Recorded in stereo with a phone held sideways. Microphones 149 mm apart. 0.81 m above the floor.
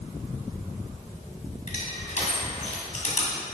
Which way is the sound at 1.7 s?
60° left (ahead or behind).